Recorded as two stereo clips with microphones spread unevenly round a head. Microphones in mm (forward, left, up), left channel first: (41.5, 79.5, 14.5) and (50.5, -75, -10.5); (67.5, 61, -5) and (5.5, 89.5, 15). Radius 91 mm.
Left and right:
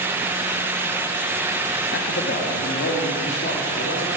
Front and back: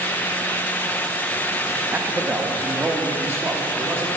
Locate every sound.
1.9 s a man speaking: 90° left, 1.5 m; by 4.1 s 95° left, 3 m